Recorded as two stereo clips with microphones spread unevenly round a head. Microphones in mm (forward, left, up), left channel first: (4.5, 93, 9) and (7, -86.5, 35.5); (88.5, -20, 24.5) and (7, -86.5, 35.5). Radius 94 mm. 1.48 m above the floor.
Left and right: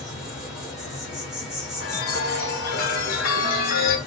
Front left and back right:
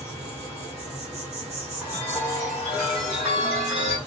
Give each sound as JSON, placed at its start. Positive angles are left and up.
{"t": 0.0, "sound": "an insect", "azimuth_deg": 180, "distance_m": 1.7}
{"t": 1.8, "sound": "a chime", "azimuth_deg": 135, "distance_m": 1.1}